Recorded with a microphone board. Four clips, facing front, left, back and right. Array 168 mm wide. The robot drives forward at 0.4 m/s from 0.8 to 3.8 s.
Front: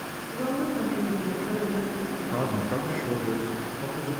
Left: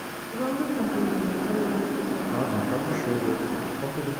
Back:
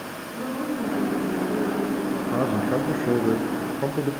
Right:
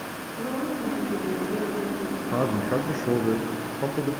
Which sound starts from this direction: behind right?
A man speaking, at 2.3 s.